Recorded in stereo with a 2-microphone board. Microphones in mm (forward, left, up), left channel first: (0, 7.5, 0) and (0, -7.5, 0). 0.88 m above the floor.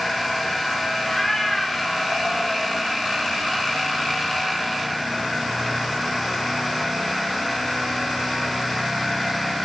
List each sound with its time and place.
1.0 s a cat meowing: 15° left (ahead or behind), 5.5 m; by 2.8 s 45° left (ahead or behind), 5.5 m